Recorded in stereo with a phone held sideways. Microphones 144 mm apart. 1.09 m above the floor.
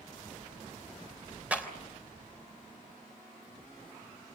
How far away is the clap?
About 3 m.